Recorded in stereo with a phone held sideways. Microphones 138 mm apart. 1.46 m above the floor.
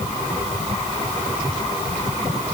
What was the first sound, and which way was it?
Only background noise.